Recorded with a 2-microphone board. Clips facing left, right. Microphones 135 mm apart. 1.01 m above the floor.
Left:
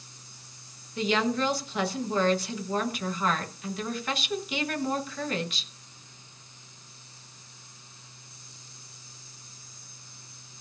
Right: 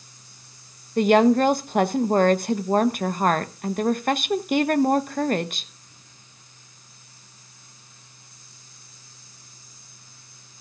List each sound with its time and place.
1.0 s a woman speaking: 55° right (ahead or behind), 0.9 m